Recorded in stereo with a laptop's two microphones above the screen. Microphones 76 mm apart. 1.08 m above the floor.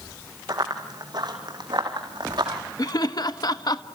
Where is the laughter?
60° left (ahead or behind), 1.1 m.